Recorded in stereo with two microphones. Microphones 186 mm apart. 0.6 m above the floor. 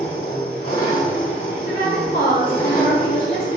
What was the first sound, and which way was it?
An engine running, 50° left (ahead or behind).